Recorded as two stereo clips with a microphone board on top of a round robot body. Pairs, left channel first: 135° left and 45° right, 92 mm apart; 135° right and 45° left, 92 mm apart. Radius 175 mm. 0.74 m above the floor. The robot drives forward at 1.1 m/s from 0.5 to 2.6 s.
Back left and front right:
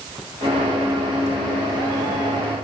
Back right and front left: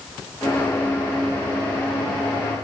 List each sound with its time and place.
Only background noise.